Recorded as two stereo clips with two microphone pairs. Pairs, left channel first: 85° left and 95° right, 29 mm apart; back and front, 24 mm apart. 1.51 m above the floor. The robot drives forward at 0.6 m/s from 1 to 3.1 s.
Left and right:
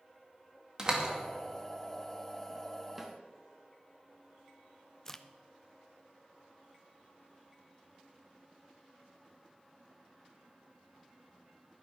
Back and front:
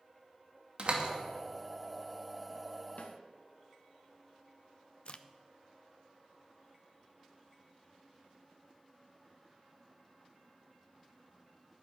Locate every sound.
0.8 s a door slam: 35° right, 2 m
3.0 s a snare drum: 175° right, 1.5 m
5.0 s a crack: 155° left, 0.6 m